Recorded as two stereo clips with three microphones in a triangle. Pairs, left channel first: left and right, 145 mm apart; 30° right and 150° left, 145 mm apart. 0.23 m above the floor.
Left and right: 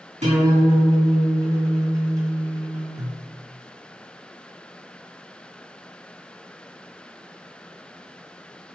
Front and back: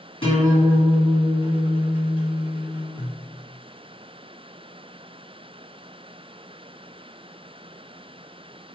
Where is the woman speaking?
No woman speaking in this recording.